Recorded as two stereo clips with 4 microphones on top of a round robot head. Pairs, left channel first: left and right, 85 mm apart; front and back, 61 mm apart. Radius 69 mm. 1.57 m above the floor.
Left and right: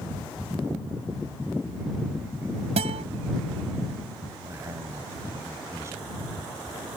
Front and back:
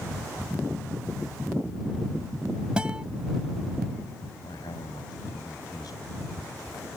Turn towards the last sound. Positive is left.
turn(degrees=-35)